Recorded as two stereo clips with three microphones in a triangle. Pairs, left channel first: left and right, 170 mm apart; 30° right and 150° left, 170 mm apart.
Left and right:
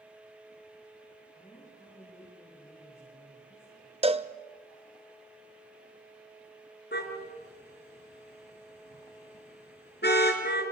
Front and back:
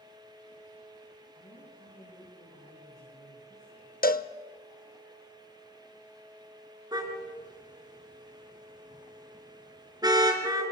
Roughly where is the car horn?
Left.